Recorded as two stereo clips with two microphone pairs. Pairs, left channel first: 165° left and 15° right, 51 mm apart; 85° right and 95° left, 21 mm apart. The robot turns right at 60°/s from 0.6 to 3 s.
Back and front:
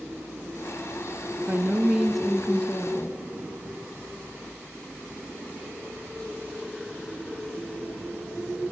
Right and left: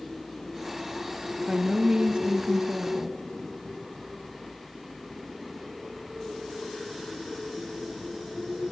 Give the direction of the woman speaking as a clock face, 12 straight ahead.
11 o'clock.